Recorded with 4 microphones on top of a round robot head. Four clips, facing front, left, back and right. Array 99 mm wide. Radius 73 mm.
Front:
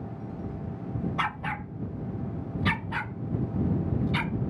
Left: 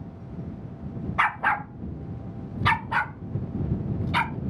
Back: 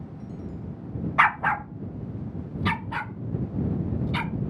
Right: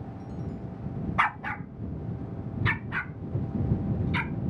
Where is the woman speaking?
No woman speaking in this recording.